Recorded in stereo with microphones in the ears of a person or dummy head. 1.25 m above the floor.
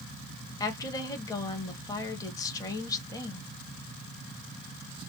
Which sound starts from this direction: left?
A woman speaking, at 0.6 s.